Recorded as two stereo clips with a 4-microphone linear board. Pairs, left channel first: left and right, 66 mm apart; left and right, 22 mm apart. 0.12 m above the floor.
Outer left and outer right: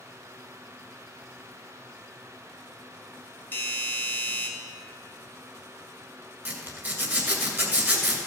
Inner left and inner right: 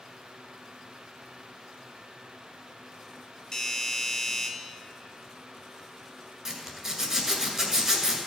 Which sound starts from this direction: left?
A doorbell, at 3.5 s.